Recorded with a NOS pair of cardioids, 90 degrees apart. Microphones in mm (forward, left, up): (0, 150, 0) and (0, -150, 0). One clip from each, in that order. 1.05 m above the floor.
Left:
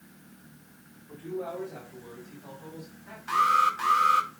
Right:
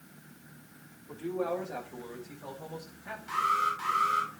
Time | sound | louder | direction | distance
1.1 | a man speaking | right 3 dB | 50° right | 4.5 m
3.3 | an alarm | left 6 dB | 50° left | 2.5 m